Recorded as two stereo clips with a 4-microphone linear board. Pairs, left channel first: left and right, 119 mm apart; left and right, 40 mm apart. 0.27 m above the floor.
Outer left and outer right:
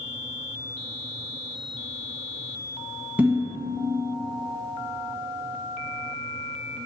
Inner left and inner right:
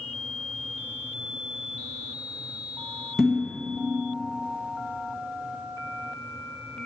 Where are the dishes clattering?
15° right (ahead or behind), 1.7 m.